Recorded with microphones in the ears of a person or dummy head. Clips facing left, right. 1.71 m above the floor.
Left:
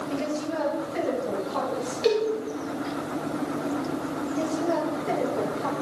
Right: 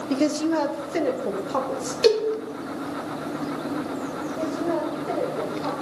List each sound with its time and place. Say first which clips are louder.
0.1 s a woman speaking: right 8 dB; 55° right (ahead or behind), 0.8 m; by 1.9 s 65° right (ahead or behind), 2.5 m
2.0 s a cowbell: right 4 dB; 65° right (ahead or behind), 2.0 m
4.3 s a woman speaking: even; 25° left (ahead or behind), 5.5 m